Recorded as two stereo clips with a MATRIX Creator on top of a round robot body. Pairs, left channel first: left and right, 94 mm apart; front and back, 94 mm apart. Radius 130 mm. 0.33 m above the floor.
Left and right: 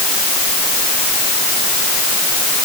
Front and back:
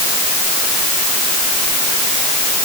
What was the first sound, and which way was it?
Only background noise.